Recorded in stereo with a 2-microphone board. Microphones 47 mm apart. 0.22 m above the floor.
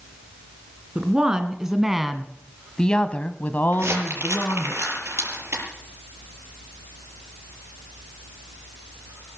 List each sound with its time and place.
0.9 s a woman speaking: 20° right (ahead or behind), 2.5 m; by 4.7 s 55° left (ahead or behind), 1.9 m
3.7 s crumpling: 70° right (ahead or behind), 6 m